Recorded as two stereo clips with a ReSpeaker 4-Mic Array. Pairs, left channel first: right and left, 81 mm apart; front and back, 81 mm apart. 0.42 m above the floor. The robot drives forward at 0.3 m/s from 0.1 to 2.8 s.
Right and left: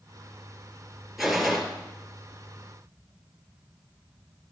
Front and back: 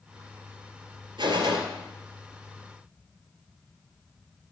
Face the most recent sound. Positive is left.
turn(degrees=180)